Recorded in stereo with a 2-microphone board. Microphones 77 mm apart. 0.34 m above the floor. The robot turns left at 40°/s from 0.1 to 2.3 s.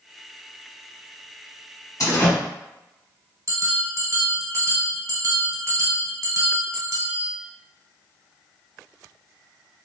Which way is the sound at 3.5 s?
45° right (ahead or behind).